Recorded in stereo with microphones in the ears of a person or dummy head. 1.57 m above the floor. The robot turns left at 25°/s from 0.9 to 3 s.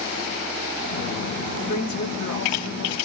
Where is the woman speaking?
140° left, 1.0 m; by 3.0 s 105° left, 1.0 m.